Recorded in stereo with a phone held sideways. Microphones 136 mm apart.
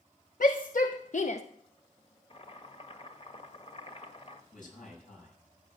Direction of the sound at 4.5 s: 70° left (ahead or behind).